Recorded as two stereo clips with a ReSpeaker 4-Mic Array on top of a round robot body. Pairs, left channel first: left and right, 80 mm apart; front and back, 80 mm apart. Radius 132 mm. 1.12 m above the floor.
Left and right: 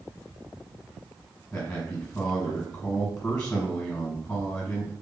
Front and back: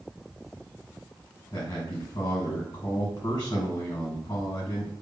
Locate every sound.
1.5 s a man speaking: 20° left, 1.2 m